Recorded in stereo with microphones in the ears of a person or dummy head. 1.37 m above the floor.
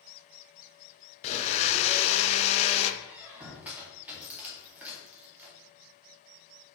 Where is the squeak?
10° right (ahead or behind), 2 m.